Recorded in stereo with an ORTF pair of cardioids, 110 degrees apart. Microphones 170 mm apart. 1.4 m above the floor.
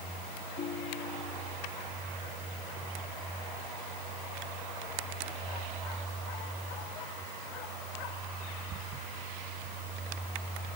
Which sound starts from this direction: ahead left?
A ringtone, at 0.6 s.